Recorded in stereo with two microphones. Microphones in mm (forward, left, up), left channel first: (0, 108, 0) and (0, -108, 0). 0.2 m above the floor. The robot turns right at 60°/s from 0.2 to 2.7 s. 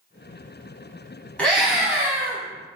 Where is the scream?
5° left (ahead or behind), 1.0 m; by 2.4 s 15° right (ahead or behind), 1.0 m.